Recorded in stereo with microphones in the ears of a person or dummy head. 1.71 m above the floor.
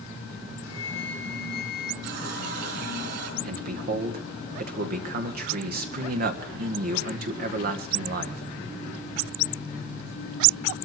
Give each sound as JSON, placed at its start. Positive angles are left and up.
{"t": 0.6, "sound": "a flute", "side_deg": 65, "distance_m": 1.3}
{"t": 2.0, "sound": "a running tap", "side_deg": -55, "distance_m": 4.0}
{"t": 3.4, "sound": "a man speaking", "side_deg": -55, "distance_m": 1.8}